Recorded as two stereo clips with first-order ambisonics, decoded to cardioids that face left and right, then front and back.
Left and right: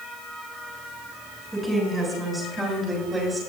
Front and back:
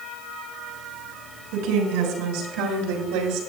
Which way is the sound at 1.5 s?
175° right.